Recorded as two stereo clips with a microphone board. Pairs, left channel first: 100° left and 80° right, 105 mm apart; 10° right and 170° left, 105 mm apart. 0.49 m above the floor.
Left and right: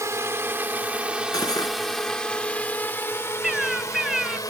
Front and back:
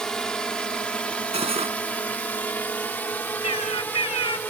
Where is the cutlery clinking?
155° left.